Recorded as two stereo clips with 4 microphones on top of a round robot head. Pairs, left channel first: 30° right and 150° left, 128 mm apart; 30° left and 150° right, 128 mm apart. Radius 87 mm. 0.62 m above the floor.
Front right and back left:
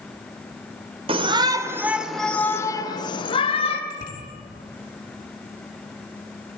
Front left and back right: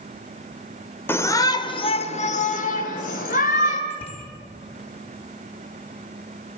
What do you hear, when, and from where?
1.1 s a shout: 105° left, 2 m; by 3.8 s 10° left, 3.5 m
3.9 s a bicycle bell: 15° right, 8 m